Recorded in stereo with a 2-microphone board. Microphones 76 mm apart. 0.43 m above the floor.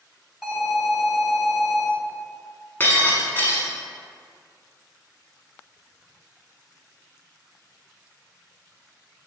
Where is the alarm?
10° right (ahead or behind), 1.2 m.